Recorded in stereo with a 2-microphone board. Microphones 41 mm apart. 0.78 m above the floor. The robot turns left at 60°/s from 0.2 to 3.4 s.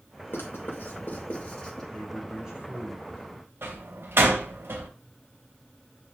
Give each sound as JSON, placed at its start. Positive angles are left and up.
{"t": 0.3, "sound": "writing", "side_deg": 70, "distance_m": 3.5}
{"t": 1.9, "sound": "a man speaking", "azimuth_deg": 15, "distance_m": 2.5}
{"t": 3.6, "sound": "a door slam", "side_deg": -75, "distance_m": 3.0}